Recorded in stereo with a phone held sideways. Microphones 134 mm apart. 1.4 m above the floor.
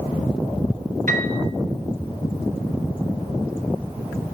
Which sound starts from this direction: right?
A piano, at 1.1 s.